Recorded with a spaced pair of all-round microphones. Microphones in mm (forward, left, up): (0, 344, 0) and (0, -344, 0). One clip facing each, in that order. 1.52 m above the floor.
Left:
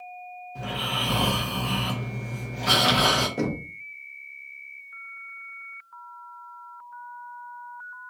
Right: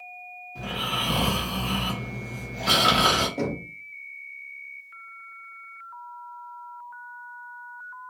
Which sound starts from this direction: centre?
Snoring, at 0.6 s.